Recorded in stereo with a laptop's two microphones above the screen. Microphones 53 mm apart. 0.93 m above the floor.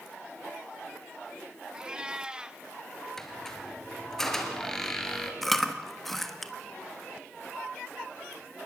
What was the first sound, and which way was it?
A cat meowing, 15° right (ahead or behind).